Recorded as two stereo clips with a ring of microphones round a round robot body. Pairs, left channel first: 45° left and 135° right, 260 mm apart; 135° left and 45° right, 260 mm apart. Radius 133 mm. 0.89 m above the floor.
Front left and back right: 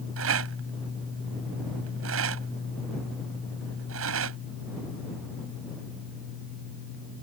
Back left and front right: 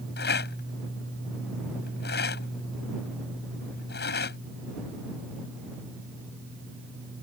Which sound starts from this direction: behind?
A rattle, at 0.2 s.